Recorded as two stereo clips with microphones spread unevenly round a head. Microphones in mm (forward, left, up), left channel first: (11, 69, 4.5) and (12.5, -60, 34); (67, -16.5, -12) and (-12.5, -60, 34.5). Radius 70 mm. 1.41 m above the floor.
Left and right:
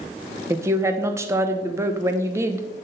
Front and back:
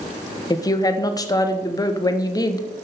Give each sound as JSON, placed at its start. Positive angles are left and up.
{"t": 0.5, "sound": "a woman speaking", "azimuth_deg": -15, "distance_m": 1.3}